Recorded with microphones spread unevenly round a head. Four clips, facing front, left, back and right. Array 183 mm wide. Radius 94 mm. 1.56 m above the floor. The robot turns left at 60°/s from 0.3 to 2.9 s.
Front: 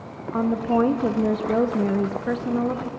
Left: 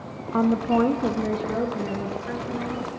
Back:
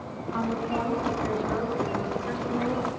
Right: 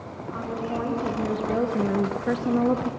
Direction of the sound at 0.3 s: 65° left.